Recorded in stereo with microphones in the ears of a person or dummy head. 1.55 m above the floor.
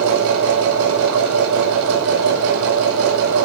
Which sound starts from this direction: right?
A machine running, at 0.0 s.